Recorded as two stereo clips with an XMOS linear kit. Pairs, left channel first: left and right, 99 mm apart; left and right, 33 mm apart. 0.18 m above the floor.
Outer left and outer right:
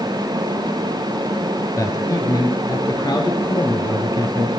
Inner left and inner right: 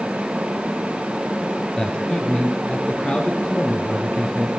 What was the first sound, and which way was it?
A man speaking, 30° left (ahead or behind).